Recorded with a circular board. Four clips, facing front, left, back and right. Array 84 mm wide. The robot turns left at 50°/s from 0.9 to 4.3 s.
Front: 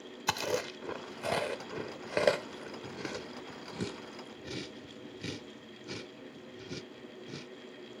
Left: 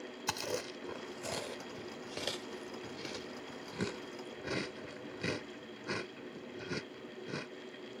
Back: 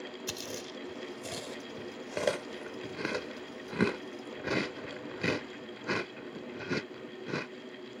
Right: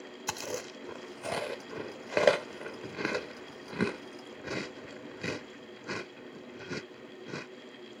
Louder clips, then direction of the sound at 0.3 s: Right 1 dB, front 8 dB; 5° right.